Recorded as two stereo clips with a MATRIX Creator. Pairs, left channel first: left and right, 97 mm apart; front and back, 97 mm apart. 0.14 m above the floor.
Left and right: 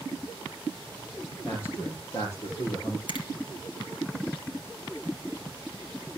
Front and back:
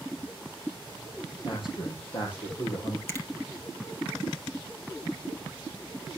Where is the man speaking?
25° left, 3.5 m; by 3.0 s 45° left, 3.5 m.